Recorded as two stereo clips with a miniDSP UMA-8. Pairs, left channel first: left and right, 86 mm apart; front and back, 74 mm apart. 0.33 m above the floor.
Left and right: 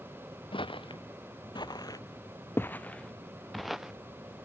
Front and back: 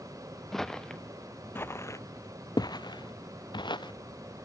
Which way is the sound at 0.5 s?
85° left.